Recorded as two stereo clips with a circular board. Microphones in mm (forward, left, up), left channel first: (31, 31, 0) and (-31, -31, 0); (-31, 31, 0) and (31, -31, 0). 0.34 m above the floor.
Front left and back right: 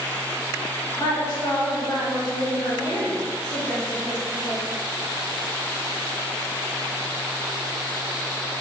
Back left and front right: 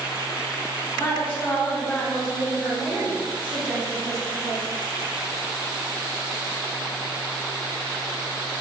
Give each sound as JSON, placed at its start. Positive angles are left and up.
{"t": 0.9, "sound": "a woman speaking", "azimuth_deg": 80, "distance_m": 1.9}